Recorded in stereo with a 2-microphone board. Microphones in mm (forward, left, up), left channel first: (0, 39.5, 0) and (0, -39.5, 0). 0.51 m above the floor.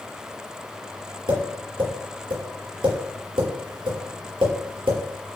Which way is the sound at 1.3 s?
90° right.